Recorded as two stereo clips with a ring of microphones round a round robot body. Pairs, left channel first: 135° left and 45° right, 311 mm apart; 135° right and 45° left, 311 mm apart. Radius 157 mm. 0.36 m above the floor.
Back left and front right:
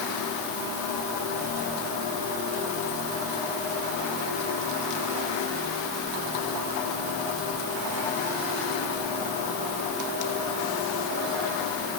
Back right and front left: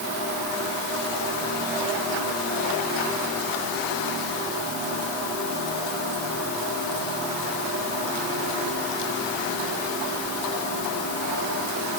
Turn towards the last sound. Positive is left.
No sound to turn to.